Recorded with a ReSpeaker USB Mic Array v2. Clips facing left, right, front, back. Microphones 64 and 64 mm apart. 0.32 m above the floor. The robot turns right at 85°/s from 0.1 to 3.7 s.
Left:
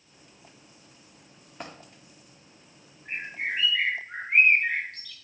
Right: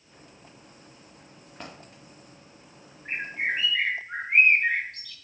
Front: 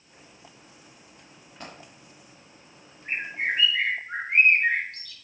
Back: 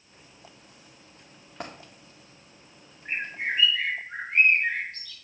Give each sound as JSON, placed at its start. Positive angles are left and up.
{"t": 1.6, "sound": "a dropped coin", "azimuth_deg": 170, "distance_m": 4.5}
{"t": 3.0, "sound": "a bird", "azimuth_deg": -55, "distance_m": 3.0}